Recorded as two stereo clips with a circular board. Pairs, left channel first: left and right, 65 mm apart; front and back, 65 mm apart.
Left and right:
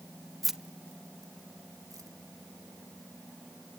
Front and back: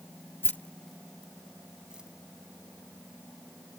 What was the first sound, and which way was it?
Keys jangling, 5° left.